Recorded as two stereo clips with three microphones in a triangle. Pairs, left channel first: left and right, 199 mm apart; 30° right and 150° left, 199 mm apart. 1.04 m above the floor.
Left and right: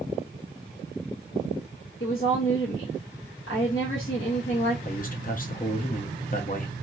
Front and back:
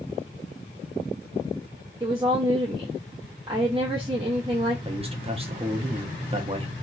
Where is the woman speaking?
85° left, 1.1 m.